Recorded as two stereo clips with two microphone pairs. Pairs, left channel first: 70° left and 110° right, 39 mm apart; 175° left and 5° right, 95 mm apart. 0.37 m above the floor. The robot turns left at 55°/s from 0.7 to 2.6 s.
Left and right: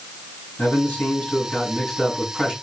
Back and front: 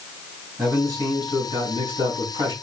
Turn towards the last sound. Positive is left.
turn(degrees=-50)